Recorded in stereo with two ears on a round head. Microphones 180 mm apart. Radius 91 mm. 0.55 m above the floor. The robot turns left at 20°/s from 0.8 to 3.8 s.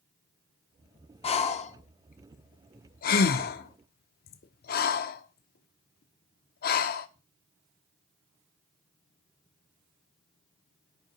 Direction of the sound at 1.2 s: 30° left (ahead or behind).